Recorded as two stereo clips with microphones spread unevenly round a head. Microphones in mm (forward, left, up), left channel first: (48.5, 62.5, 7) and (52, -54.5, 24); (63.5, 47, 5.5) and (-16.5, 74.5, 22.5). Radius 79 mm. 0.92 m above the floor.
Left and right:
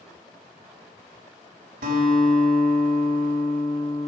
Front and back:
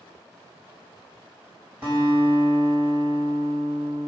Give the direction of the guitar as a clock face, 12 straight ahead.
4 o'clock.